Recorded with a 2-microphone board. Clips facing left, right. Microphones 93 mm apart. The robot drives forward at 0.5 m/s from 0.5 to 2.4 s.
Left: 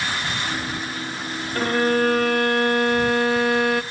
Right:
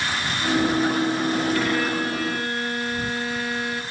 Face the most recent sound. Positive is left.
turn(degrees=55)  # may be behind; listen again after turning